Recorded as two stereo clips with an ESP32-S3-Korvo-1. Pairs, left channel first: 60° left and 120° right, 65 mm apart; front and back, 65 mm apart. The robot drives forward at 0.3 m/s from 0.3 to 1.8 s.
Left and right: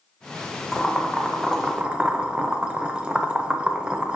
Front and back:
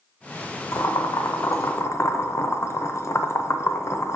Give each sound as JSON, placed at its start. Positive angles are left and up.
{"t": 0.7, "sound": "boiling", "azimuth_deg": -30, "distance_m": 0.9}